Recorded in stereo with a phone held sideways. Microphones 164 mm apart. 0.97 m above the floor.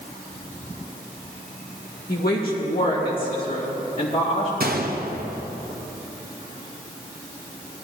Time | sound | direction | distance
2.1 | a woman speaking | 65° left (ahead or behind) | 1.7 m
4.6 | a gunshot | 70° right (ahead or behind) | 0.9 m